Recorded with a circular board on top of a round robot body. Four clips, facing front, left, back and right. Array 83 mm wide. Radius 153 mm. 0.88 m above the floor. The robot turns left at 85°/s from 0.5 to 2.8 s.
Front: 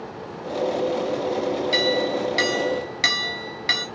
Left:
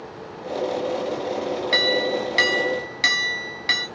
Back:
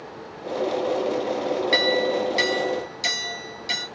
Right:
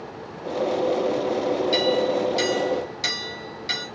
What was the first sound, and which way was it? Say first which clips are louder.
A clink: left 1 dB, back 2 dB; 130° left.